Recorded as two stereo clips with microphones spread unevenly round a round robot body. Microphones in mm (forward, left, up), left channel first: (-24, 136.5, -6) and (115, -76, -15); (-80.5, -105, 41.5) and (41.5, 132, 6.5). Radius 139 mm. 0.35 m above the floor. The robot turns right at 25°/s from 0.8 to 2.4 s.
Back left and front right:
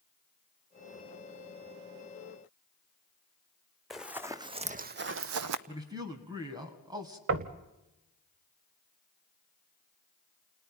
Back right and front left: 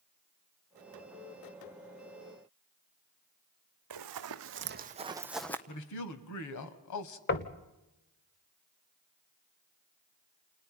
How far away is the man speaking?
About 2.5 m.